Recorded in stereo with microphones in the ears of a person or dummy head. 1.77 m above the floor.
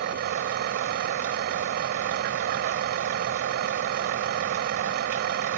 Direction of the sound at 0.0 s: 50° right (ahead or behind).